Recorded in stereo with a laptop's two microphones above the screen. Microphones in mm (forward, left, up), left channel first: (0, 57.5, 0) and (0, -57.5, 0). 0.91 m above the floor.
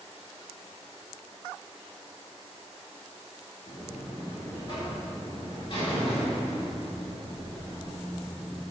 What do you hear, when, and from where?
3.7 s a buzzer: 45° left (ahead or behind), 1.9 m